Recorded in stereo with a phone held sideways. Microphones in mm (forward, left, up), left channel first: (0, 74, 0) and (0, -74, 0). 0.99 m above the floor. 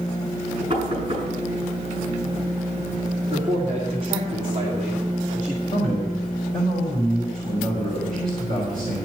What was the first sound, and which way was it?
Knocking, 45° right (ahead or behind).